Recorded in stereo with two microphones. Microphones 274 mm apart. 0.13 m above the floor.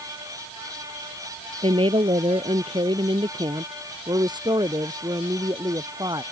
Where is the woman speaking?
20° right (ahead or behind); by 6.2 s 15° right (ahead or behind).